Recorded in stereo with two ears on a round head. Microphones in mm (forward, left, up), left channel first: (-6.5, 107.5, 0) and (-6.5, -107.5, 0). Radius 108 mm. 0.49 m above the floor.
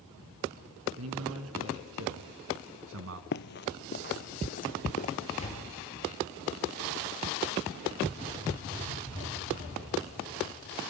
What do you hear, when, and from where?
1.0 s a man speaking: 70° right (ahead or behind), 5.5 m; by 3.2 s 60° right (ahead or behind), 4 m
3.3 s running footsteps: 45° left (ahead or behind), 0.6 m; by 5.1 s 35° left (ahead or behind), 1.9 m
5.4 s a door slam: 30° left (ahead or behind), 7.5 m